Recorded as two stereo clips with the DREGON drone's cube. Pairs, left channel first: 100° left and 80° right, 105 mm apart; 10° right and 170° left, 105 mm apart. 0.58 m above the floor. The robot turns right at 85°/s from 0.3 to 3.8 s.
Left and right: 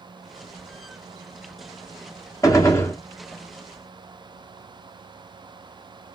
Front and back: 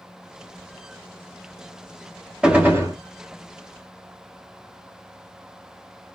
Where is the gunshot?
95° left, 0.8 m; by 3.0 s 140° left, 0.8 m.